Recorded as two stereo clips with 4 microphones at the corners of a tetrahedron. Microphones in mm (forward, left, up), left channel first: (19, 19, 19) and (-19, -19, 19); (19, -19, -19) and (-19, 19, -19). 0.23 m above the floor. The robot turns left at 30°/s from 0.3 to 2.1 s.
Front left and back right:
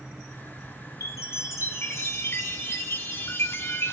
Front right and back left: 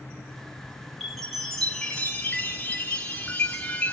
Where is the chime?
45° left, 1.0 m; by 3.9 s 15° left, 1.0 m.